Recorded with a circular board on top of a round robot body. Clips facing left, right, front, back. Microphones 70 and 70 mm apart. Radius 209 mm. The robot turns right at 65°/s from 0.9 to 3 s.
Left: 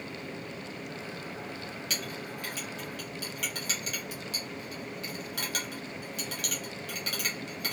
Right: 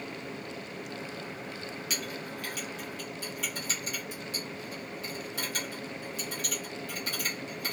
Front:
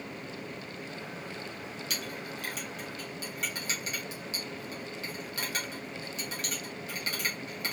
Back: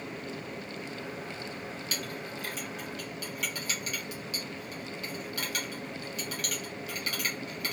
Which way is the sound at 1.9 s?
10° right.